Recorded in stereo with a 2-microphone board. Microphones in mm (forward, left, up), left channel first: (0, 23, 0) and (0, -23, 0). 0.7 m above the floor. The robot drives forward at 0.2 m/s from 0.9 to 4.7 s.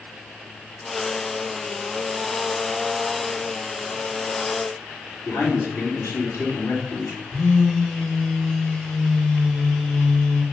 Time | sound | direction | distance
5.2 | a man speaking | 80° left | 4 m
7.3 | a phone buzzing | 10° left (ahead or behind) | 5 m